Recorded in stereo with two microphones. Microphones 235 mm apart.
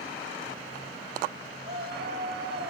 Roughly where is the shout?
Right.